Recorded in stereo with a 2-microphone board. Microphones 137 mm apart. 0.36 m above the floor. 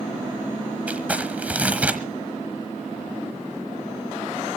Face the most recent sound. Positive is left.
turn(degrees=-10)  # may be behind; listen again after turning